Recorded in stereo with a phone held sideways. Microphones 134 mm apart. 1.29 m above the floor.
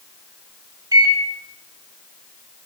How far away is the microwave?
About 1.5 m.